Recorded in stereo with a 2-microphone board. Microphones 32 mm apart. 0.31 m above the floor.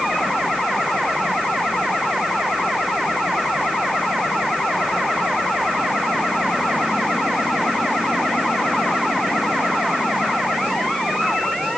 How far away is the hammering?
No hammering in this recording.